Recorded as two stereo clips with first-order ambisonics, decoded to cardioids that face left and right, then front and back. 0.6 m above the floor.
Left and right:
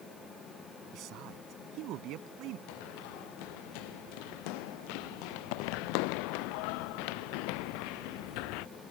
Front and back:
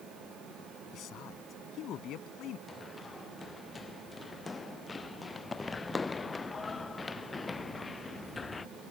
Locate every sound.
0.9 s a man speaking: 50° right
2.7 s running footsteps: 75° left; by 8.7 s 80° left